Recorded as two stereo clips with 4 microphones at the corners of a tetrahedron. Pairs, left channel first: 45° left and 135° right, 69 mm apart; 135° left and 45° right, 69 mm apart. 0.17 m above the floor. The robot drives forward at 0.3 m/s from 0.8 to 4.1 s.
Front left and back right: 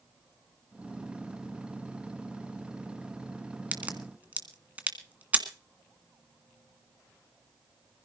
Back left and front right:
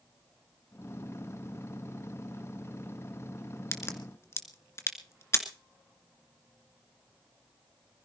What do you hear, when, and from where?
3.7 s a crack: 165° left, 2 m